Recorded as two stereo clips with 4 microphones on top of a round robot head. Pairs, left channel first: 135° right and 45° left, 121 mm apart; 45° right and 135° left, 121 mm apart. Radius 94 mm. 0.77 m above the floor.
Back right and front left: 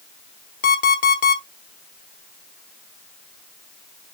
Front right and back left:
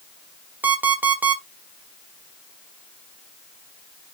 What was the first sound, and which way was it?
An alarm clock, 145° right.